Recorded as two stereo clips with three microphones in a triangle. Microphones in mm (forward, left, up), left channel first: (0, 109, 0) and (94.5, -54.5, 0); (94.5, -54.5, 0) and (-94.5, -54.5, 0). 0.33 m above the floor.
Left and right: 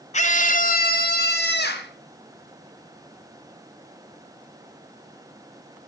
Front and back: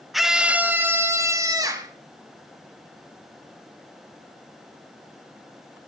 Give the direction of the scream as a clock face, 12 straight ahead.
9 o'clock.